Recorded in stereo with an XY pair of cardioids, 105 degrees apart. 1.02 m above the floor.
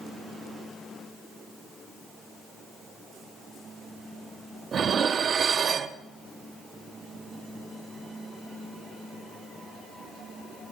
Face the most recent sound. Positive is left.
turn(degrees=-50)